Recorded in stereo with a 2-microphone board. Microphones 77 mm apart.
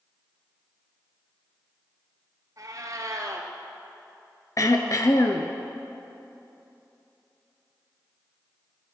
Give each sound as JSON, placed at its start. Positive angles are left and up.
{"t": 2.6, "sound": "a cat meowing", "side_deg": -55, "distance_m": 0.9}
{"t": 4.6, "sound": "throat clearing", "side_deg": 50, "distance_m": 0.6}